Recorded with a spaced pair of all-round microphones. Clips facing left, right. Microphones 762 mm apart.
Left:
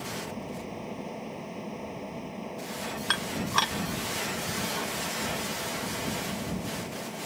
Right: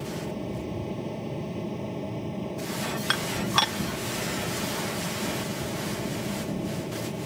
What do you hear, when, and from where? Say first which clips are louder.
0.0 s a fan: right 5 dB; 65° right (ahead or behind)
3.1 s dishes clattering: right 3 dB; 25° right (ahead or behind)